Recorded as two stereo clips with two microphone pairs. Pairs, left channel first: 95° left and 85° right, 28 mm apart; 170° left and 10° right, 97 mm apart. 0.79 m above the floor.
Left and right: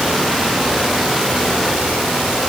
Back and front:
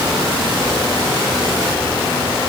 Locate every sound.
Only background noise.